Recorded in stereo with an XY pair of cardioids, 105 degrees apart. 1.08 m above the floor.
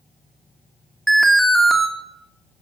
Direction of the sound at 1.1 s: Straight ahead.